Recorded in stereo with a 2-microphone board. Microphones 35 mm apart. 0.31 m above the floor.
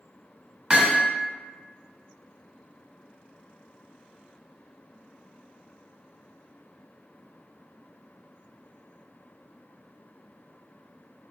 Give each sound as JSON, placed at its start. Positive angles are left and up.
{"t": 0.7, "sound": "hammering", "side_deg": -25, "distance_m": 0.7}